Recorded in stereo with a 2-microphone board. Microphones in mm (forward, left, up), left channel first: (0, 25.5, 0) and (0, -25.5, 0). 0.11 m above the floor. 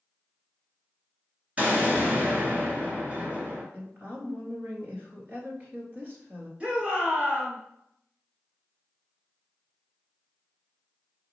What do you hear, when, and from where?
1.6 s an explosion: 25° right (ahead or behind), 1.7 m
3.7 s a woman speaking: 30° right (ahead or behind), 1.6 m
6.6 s a shout: 25° right (ahead or behind), 1.7 m